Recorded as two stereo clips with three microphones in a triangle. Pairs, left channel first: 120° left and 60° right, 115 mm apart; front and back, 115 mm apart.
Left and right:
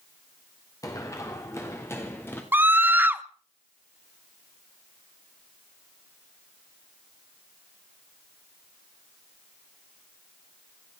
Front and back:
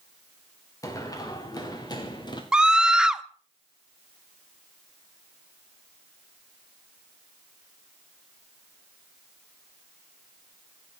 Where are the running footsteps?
60° left, 3.5 m; by 2.4 s 50° left, 4 m.